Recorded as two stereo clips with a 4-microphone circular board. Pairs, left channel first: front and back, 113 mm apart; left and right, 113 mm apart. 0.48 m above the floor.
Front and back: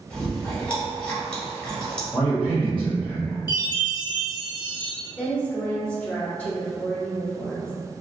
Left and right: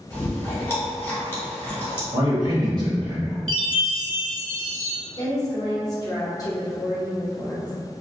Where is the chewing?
65° left, 1.3 m.